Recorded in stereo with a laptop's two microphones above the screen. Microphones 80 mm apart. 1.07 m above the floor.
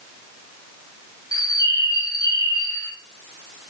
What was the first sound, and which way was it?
A bird, 50° left (ahead or behind).